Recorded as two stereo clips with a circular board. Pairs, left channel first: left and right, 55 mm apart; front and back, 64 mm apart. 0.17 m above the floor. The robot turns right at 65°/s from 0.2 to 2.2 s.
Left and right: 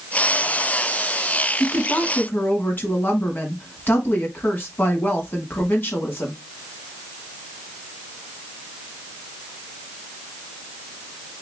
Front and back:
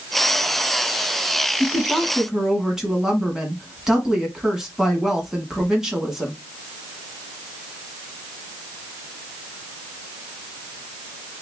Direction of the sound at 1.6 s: 65° left.